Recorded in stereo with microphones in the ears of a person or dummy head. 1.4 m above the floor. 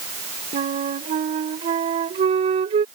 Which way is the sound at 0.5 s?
35° right (ahead or behind).